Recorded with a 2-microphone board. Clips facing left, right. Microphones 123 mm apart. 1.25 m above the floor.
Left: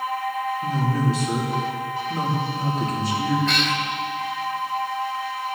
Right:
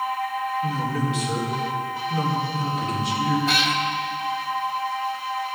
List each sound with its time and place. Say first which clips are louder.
0.6 s a man speaking: left 2 dB; 35° left (ahead or behind), 3.5 m
3.5 s a cat meowing: right 1 dB; 5° right (ahead or behind), 1.0 m